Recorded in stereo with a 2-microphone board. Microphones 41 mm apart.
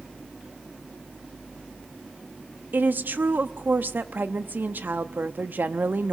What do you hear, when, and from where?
2.7 s a woman speaking: 55° right (ahead or behind), 0.8 m